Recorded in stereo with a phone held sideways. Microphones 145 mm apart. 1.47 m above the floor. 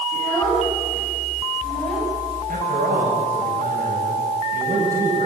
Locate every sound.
0.1 s a child speaking: 15° left (ahead or behind), 8.5 m; by 2.1 s 5° left (ahead or behind), 6.5 m
2.5 s a man speaking: 75° right (ahead or behind), 7.5 m